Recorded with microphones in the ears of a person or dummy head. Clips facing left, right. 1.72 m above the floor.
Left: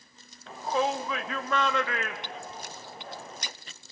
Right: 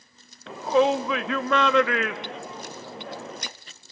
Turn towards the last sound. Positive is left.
turn(degrees=-65)  # may be behind; listen again after turning